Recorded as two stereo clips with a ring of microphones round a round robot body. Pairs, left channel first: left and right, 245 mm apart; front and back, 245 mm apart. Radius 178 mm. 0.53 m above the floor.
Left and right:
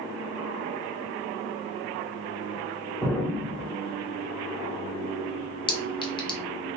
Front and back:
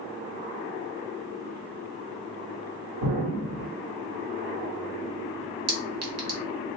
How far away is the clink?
About 1.1 m.